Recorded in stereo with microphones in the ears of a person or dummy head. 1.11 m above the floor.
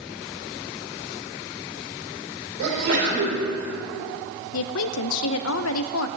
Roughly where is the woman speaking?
Left.